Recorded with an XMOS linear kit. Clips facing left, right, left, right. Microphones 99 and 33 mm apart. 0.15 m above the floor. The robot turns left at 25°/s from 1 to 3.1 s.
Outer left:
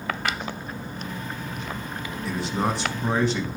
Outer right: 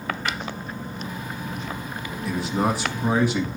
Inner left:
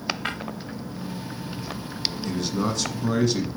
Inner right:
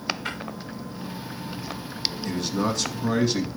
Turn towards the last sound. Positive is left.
turn(degrees=-5)  # may be behind; listen again after turning